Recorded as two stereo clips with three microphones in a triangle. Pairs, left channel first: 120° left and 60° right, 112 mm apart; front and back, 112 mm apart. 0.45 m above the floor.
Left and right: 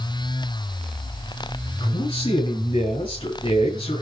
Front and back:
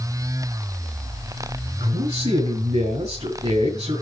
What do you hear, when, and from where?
1.8 s a man speaking: 165° left, 6 m